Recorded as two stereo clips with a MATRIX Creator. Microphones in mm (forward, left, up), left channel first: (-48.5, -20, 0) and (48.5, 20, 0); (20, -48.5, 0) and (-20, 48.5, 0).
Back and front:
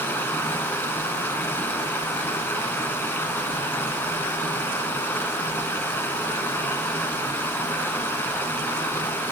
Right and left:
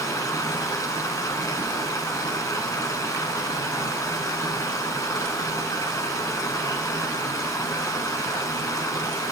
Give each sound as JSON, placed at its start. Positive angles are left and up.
{"t": 0.0, "sound": "running water", "azimuth_deg": -100, "distance_m": 1.1}